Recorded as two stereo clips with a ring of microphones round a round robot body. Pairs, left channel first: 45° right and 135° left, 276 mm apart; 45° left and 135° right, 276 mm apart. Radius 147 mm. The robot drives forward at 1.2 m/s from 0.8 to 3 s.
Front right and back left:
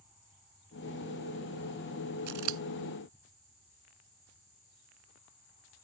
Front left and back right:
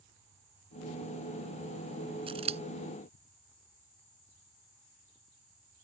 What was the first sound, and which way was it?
Scissors, 155° left.